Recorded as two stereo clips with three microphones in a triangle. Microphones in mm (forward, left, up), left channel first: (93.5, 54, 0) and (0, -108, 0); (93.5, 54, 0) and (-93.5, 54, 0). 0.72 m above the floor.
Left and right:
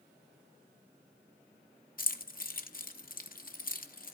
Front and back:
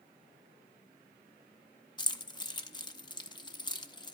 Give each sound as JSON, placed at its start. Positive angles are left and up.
{"t": 2.0, "sound": "keys jangling", "azimuth_deg": 60, "distance_m": 0.6}